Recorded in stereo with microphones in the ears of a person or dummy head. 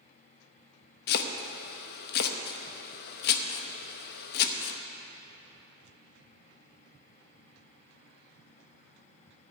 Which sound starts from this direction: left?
Chopping, at 1.1 s.